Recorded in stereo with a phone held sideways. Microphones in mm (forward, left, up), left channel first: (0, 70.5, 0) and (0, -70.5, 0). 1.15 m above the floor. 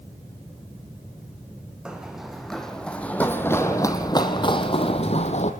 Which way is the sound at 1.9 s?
5° right (ahead or behind).